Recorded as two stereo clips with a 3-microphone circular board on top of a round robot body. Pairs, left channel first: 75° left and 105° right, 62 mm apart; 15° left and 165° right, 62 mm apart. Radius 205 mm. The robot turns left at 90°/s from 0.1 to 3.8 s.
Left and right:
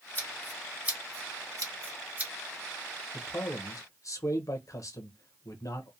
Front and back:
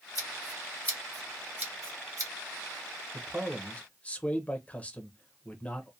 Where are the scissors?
25° left, 1.5 m; by 2.3 s 170° right, 1.5 m.